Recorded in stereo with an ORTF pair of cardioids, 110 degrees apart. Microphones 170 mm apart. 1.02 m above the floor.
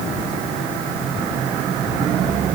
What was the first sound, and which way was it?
Only background noise.